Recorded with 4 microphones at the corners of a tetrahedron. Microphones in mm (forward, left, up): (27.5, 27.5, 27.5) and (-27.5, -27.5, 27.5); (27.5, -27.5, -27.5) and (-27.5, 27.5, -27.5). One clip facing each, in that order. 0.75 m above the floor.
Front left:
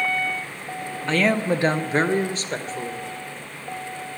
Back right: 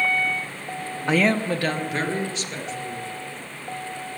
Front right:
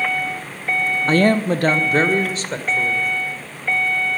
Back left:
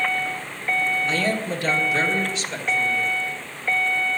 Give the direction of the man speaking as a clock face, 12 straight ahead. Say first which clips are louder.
Even, front right 8 dB; 2 o'clock.